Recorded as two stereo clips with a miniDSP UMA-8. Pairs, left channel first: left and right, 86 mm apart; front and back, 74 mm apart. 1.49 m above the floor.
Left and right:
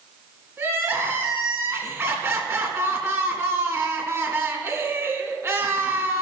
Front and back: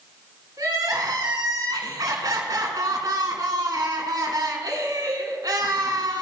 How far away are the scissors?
I don't hear scissors.